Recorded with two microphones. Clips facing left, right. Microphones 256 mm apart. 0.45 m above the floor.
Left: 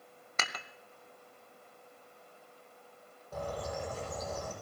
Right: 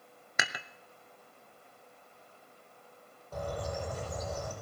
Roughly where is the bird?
Centre.